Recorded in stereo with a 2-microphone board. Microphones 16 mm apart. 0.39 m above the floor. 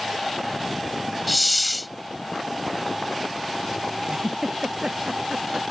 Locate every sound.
1.3 s a hiss: centre (ahead or behind)
4.1 s a giggle: 55° right (ahead or behind)